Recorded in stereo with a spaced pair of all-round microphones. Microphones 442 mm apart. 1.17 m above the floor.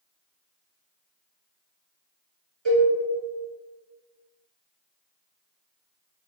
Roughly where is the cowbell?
Right.